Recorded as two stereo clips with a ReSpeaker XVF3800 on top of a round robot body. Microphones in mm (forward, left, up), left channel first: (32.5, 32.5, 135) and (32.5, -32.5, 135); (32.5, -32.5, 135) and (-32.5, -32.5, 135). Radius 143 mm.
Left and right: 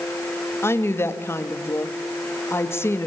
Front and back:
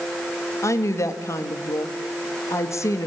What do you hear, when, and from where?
0.6 s a woman speaking: 40° left, 2 m